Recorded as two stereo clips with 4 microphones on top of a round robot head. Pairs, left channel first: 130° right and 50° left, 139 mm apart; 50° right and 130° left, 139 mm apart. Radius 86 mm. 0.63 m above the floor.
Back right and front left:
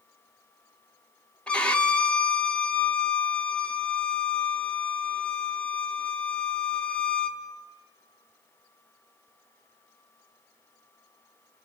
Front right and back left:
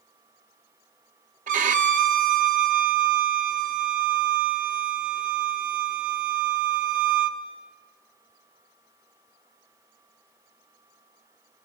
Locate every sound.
1.5 s a violin: 150° left, 1.2 m